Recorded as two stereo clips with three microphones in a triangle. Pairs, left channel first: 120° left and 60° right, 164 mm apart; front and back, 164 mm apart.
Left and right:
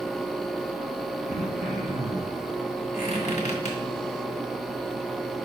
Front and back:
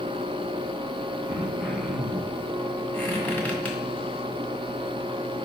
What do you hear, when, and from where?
1.3 s throat clearing: 85° right, 1.5 m
2.9 s a squeak: 80° left, 1.9 m